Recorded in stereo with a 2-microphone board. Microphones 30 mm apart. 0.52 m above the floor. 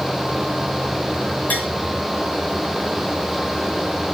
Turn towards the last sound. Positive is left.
turn(degrees=70)  # may be behind; listen again after turning